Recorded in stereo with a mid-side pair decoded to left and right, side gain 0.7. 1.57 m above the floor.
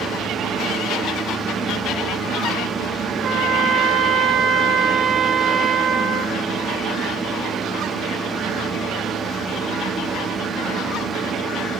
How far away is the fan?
About 1.2 m.